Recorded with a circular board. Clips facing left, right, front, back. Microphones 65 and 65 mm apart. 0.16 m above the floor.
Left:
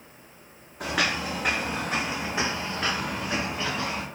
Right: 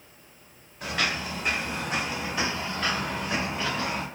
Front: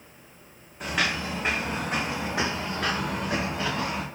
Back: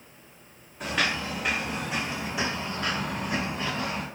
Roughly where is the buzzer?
No buzzer in this recording.